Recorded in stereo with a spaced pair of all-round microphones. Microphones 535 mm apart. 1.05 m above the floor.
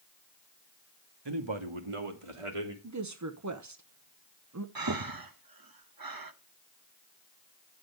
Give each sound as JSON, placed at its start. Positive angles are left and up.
{"t": 1.2, "sound": "a man speaking", "side_deg": -50, "distance_m": 1.1}
{"t": 2.8, "sound": "a woman speaking", "side_deg": -35, "distance_m": 0.7}
{"t": 4.8, "sound": "breathing", "side_deg": -40, "distance_m": 0.7}